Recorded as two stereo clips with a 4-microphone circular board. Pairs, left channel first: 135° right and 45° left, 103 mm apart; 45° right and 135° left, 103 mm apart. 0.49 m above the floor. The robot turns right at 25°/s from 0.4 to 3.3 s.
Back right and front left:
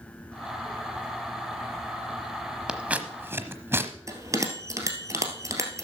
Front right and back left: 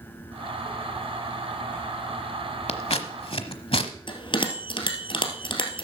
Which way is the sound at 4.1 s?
15° right.